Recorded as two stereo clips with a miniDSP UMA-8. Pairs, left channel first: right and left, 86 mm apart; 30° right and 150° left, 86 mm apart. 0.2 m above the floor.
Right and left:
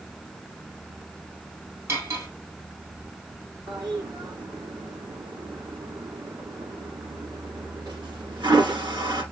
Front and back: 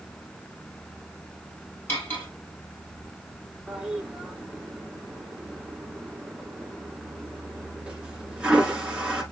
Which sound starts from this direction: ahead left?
Cutlery clinking, at 1.9 s.